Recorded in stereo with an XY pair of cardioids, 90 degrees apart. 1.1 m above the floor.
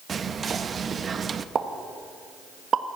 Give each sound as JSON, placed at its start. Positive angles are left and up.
{"t": 0.1, "sound": "whispering", "azimuth_deg": -50, "distance_m": 0.9}
{"t": 1.6, "sound": "a pop", "azimuth_deg": -55, "distance_m": 1.2}